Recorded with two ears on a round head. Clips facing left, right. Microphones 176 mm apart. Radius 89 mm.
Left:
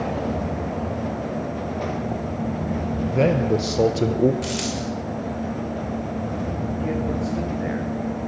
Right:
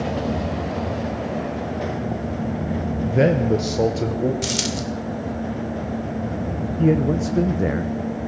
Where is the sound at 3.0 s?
20° right (ahead or behind), 1.1 m; by 4.3 s 25° left (ahead or behind), 1.1 m.